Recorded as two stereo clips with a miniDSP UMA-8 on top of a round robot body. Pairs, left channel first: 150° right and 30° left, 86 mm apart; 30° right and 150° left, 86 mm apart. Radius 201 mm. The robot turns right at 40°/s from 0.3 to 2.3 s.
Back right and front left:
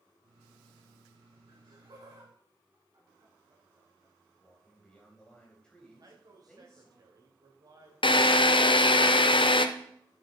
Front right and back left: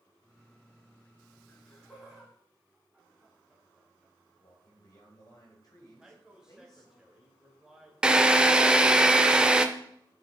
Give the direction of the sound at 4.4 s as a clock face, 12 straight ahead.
2 o'clock.